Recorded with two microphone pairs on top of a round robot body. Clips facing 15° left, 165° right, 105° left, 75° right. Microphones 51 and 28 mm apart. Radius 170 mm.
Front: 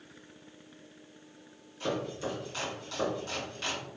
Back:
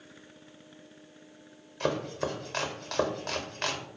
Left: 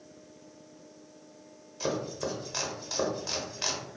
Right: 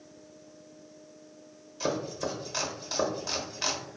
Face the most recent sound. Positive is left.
turn(degrees=-165)